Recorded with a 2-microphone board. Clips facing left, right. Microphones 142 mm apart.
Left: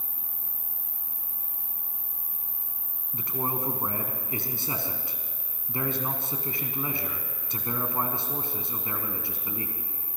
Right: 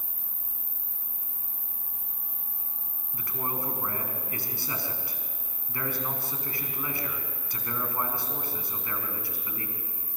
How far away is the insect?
About 9.5 m.